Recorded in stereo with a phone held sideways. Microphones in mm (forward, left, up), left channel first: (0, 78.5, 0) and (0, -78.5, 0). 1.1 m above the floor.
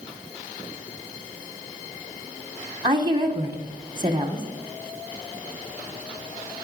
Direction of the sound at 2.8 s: 30° right (ahead or behind).